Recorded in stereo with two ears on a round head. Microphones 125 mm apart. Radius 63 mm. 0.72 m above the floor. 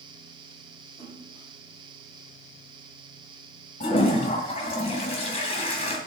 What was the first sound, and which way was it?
A splash, 25° left (ahead or behind).